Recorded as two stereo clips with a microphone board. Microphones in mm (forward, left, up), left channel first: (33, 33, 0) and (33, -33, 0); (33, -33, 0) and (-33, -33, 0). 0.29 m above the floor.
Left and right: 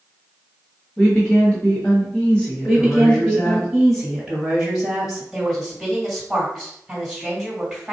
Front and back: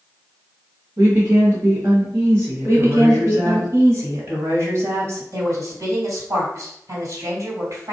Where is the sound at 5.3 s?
Straight behind, 1.9 m.